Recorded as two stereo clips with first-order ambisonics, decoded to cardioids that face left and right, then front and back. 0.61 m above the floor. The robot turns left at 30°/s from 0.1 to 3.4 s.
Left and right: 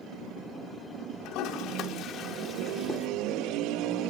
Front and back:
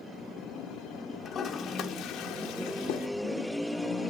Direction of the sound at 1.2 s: 60° left.